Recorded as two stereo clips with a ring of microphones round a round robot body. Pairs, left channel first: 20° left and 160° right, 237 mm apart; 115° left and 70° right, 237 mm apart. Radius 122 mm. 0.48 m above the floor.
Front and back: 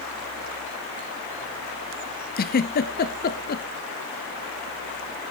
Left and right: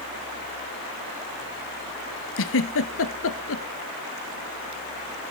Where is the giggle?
75° left, 1.5 m.